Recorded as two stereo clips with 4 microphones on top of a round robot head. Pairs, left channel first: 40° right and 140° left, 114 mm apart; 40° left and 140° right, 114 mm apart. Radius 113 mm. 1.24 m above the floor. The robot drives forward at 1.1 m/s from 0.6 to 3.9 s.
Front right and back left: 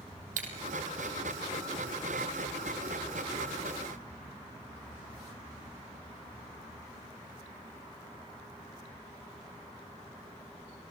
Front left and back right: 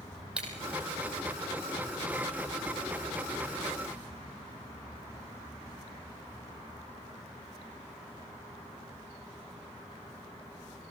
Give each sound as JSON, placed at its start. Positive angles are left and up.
{"t": 0.4, "sound": "breaking glass", "azimuth_deg": 135, "distance_m": 4.0}